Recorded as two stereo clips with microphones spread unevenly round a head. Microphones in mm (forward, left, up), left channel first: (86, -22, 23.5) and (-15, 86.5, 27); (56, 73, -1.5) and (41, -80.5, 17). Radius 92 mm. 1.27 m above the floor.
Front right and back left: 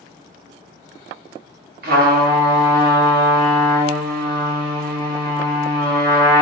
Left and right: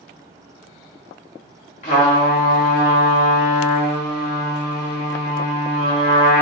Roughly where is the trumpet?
Behind left.